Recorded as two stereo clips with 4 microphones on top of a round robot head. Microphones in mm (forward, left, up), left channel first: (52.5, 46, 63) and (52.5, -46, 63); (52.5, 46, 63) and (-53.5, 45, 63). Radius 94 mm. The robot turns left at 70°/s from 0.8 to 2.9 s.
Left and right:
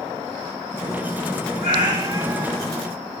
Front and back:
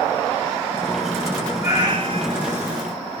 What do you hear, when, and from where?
1.6 s a cat meowing: 115° right, 0.9 m; by 2.8 s 160° left, 0.9 m